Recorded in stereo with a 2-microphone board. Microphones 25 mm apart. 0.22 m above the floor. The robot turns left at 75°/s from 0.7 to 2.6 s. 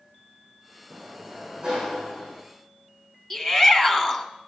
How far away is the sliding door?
About 9.5 m.